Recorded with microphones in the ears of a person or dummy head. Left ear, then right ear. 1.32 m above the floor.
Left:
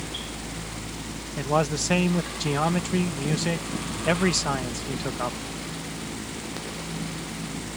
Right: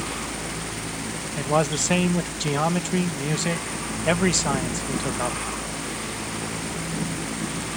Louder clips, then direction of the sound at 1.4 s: Right 2 dB; 10° right (ahead or behind).